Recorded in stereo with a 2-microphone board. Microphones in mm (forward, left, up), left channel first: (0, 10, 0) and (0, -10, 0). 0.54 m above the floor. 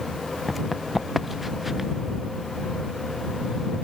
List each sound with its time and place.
0.5 s running footsteps: centre (ahead or behind); by 1.9 s 10° right (ahead or behind)